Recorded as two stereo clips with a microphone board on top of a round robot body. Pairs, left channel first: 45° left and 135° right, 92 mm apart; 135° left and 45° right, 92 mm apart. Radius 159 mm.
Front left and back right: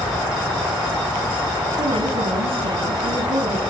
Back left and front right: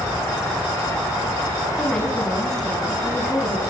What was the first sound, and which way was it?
A woman speaking, 140° right.